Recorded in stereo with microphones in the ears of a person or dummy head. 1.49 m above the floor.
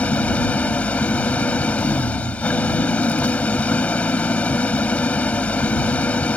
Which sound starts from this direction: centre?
An engine running, at 0.0 s.